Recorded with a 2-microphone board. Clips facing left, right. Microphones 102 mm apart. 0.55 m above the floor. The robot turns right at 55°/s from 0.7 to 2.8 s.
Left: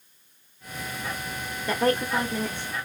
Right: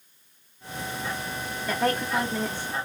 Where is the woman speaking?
15° left (ahead or behind), 0.8 m; by 2.8 s 10° right (ahead or behind), 0.8 m.